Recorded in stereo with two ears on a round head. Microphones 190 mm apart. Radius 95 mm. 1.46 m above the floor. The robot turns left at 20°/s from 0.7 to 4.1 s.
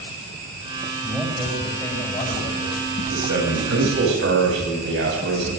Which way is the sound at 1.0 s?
175° left.